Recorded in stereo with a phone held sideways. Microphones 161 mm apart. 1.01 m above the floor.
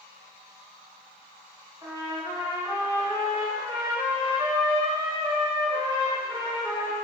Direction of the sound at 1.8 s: 25° right (ahead or behind).